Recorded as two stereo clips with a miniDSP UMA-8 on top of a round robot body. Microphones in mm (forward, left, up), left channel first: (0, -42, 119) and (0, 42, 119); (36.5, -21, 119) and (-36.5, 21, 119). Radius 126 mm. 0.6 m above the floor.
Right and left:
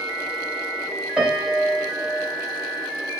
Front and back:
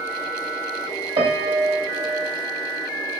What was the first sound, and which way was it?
A piano, 165° left.